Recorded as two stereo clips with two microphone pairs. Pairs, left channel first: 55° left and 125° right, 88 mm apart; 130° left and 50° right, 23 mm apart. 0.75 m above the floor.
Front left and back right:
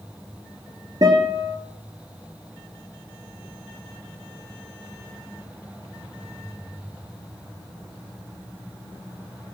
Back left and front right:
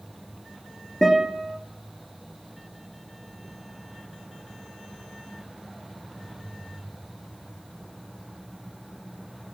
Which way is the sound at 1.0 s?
150° right.